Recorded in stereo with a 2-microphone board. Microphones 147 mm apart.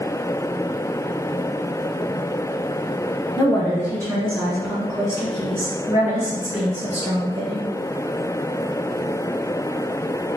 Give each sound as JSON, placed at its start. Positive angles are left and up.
{"t": 3.4, "sound": "a woman speaking", "side_deg": 25, "distance_m": 1.4}